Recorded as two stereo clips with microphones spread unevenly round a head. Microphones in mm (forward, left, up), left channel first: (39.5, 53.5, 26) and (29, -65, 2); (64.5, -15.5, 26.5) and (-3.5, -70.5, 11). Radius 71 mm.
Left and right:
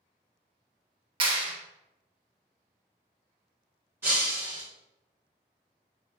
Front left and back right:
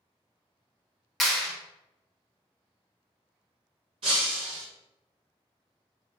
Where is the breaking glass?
175° right, 1.0 m.